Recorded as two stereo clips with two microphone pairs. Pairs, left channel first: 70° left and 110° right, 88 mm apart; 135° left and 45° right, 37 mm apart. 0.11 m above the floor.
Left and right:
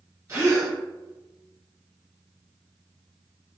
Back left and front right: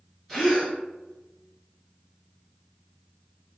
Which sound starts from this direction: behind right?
A gasp, at 0.3 s.